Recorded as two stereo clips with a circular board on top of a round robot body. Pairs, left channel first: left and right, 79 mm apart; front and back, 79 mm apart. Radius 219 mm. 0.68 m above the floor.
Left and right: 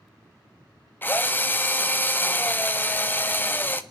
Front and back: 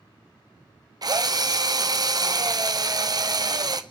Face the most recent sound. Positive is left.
turn(degrees=155)